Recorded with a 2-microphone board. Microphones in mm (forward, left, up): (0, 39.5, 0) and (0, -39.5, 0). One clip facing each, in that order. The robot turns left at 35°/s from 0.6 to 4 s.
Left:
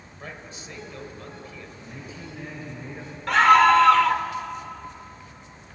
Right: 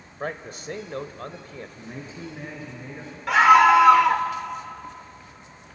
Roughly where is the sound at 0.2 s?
Right.